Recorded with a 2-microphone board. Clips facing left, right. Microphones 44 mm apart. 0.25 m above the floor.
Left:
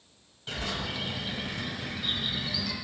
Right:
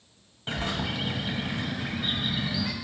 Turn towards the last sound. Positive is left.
turn(degrees=-35)  # may be behind; listen again after turning